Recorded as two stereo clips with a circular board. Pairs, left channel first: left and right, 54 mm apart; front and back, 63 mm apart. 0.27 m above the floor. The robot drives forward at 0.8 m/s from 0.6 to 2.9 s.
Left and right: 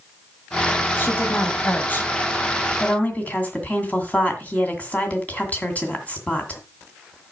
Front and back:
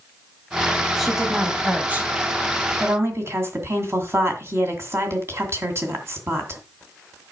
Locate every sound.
1.0 s a woman speaking: 90° left, 1.6 m; by 6.6 s 145° left, 2 m